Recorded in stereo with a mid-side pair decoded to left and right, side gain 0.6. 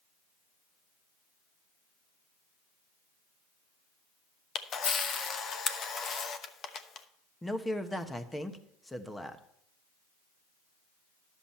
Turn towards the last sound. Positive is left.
turn(degrees=10)